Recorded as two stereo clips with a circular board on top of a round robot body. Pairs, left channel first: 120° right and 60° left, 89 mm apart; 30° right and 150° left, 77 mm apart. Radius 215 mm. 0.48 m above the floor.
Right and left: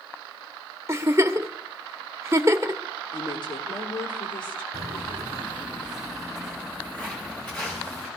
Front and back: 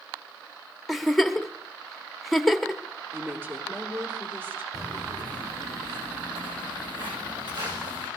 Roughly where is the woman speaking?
Behind right.